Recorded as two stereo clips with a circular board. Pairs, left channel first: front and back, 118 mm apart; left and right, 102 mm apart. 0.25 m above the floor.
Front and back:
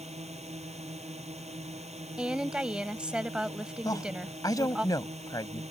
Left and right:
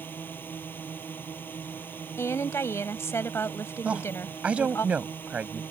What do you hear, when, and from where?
0.0 s a drone: 160° left
2.2 s a woman speaking: 110° left
3.9 s a woman speaking: 20° right